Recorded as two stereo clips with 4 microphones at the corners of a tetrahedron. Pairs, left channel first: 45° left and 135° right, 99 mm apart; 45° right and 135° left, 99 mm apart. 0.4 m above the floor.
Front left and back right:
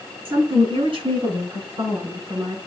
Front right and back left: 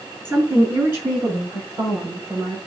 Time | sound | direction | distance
0.2 | a woman speaking | 160° right | 5 m